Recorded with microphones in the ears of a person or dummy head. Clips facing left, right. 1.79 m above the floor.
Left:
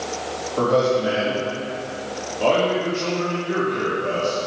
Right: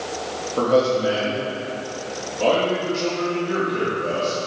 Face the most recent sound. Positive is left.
turn(degrees=-40)  # may be behind; listen again after turning